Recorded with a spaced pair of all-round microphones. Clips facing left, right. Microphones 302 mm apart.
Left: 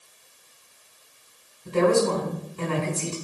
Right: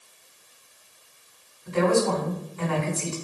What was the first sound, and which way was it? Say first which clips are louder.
A woman speaking: left 2 dB; 40° left (ahead or behind).